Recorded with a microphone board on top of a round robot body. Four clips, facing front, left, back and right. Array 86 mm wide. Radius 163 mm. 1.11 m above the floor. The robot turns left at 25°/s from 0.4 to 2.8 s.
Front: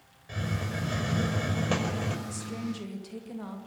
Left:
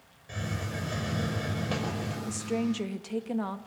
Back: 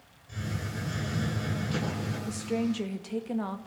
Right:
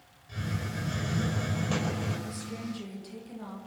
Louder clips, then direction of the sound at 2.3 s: Left 8 dB, back 6 dB; 135° left.